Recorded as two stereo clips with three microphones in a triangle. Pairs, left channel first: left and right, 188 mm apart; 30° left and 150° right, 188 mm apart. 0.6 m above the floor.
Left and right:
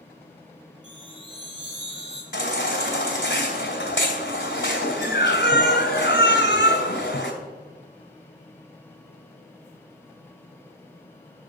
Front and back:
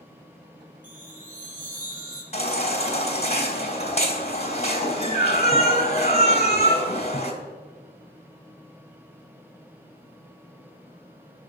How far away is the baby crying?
About 2.5 m.